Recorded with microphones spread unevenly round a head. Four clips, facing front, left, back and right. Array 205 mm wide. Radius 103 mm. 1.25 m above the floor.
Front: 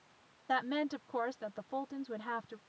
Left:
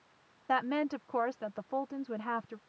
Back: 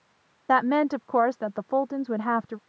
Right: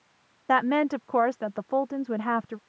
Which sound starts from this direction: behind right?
A woman speaking, at 0.5 s.